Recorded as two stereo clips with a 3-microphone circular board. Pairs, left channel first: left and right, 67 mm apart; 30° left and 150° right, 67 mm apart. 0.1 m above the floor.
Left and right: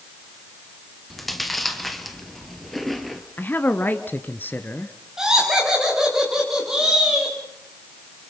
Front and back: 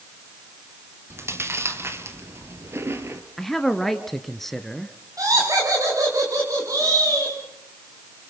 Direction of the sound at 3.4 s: 110° left.